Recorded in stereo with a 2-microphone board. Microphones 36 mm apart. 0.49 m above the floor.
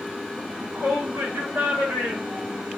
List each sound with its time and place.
0.4 s a shout: 55° right (ahead or behind), 7 m; by 2.7 s 65° right (ahead or behind), 5 m